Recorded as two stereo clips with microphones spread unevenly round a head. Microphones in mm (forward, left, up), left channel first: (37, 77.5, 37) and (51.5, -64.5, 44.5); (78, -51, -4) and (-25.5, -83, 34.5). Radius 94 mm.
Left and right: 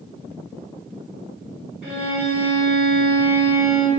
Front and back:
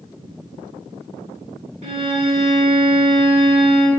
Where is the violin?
165° right, 3 m.